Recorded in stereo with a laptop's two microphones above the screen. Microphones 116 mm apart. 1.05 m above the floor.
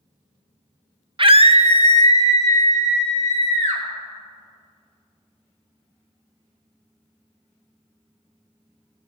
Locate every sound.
1.2 s a scream: 45° right (ahead or behind), 0.6 m; by 3.8 s 80° right, 2.0 m